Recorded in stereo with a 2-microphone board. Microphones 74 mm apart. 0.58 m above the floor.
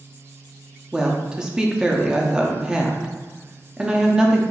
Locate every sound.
0.9 s a woman speaking: 10° right (ahead or behind), 0.6 m